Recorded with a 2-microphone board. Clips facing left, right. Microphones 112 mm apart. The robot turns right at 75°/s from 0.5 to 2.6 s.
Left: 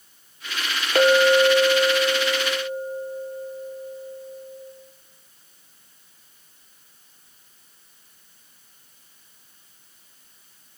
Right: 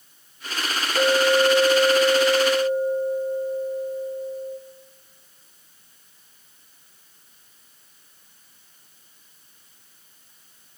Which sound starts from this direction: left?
A clink, at 0.9 s.